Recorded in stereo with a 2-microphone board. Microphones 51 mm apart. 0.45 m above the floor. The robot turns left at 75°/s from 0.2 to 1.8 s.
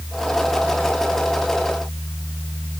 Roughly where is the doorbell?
I don't hear a doorbell.